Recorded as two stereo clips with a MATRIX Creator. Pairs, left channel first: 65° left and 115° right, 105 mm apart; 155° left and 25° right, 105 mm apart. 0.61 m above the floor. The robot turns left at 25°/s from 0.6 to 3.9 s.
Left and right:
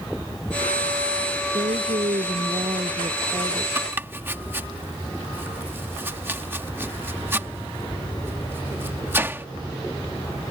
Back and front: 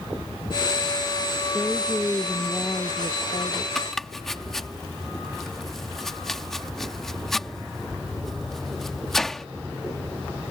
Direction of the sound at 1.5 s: 110° right.